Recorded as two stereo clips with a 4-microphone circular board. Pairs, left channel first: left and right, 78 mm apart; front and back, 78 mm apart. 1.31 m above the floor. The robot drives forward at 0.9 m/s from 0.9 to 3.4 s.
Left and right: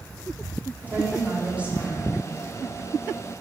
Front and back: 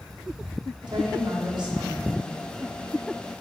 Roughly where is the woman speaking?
Behind.